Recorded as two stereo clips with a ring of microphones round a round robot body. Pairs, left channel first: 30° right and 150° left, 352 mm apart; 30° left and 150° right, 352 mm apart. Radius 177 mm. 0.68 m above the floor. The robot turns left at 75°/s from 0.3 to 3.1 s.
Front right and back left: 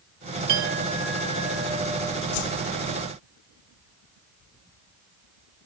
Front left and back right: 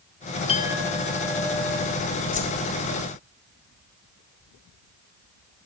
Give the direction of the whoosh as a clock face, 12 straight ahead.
1 o'clock.